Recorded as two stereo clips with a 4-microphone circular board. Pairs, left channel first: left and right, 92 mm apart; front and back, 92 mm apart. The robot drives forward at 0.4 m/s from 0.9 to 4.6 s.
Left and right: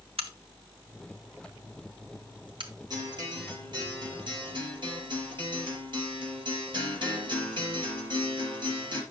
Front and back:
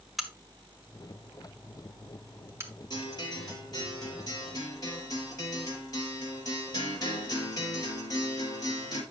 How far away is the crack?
About 1.4 m.